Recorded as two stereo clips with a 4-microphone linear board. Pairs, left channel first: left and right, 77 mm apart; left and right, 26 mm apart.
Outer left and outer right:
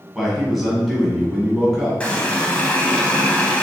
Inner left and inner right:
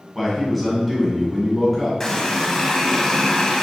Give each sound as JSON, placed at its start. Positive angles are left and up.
{"t": 0.1, "sound": "a man speaking", "side_deg": 0, "distance_m": 1.7}
{"t": 2.0, "sound": "a running tap", "side_deg": 15, "distance_m": 0.7}